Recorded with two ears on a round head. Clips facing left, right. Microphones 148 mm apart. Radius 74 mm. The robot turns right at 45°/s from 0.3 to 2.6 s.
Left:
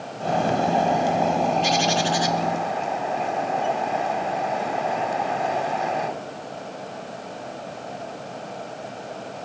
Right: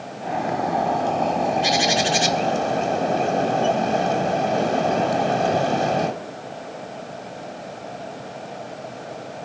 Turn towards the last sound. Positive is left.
turn(degrees=-125)